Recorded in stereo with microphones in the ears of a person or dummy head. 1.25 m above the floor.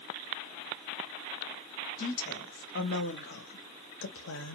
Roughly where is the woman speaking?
Left.